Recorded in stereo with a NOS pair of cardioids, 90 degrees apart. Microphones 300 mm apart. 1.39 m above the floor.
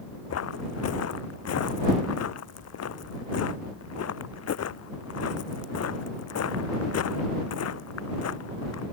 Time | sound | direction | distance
0.3 | footsteps | 55° left | ?